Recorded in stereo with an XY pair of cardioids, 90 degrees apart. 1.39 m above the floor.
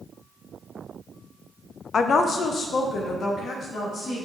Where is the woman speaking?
55° left, 0.7 m; by 4.2 s 65° left, 3 m.